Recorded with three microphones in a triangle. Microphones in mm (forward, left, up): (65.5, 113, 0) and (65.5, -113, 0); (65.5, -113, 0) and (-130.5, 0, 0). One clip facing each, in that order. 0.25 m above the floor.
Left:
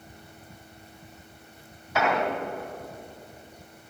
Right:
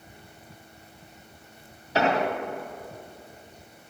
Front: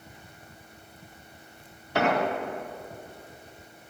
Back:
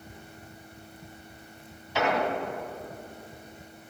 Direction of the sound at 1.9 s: 35° right.